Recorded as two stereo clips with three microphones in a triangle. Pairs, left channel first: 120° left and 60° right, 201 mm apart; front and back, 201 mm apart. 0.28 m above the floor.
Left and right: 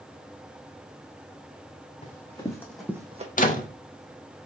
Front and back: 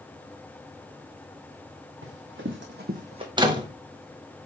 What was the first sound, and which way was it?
Running footsteps, straight behind.